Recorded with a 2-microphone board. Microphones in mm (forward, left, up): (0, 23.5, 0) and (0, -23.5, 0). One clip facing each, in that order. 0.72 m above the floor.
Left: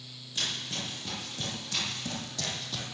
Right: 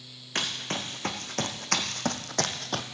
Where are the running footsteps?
70° right (ahead or behind), 2.5 m; by 2.9 s 50° right (ahead or behind), 1.0 m.